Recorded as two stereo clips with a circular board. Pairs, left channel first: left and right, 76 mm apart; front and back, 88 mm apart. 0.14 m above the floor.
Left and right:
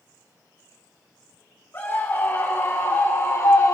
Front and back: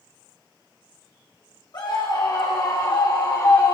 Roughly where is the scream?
Ahead left.